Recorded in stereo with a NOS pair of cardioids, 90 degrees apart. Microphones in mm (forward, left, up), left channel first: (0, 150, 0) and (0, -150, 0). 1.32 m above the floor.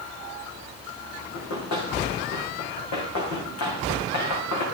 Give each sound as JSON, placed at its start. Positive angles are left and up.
{"t": 1.3, "sound": "running footsteps", "azimuth_deg": 70, "distance_m": 6.5}